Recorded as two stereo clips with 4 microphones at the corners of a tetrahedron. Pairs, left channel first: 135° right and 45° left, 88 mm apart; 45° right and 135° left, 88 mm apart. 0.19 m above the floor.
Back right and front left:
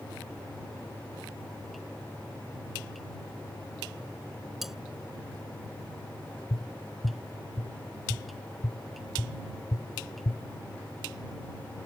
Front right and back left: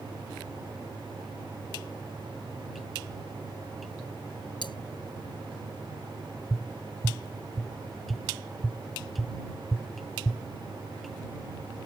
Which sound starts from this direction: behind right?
Tapping, at 6.5 s.